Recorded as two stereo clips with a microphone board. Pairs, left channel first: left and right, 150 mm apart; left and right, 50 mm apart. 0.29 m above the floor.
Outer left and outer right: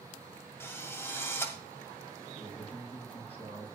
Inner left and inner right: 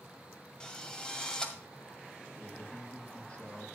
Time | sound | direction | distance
0.6 | a drill | 15° left (ahead or behind) | 2.0 m
2.4 | a man speaking | 40° left (ahead or behind) | 5 m